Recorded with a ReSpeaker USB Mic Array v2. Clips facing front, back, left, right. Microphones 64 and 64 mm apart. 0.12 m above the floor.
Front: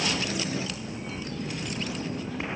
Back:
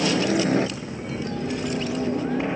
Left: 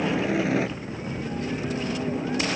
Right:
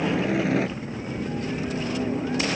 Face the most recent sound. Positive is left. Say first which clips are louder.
# back 8 dB, right 1 dB
turn(degrees=180)